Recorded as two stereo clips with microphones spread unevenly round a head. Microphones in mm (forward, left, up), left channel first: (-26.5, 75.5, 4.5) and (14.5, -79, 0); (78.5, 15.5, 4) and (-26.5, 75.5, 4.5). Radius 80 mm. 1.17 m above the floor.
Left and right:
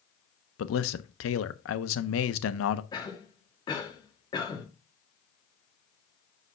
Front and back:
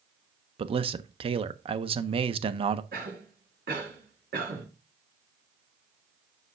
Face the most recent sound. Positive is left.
turn(degrees=170)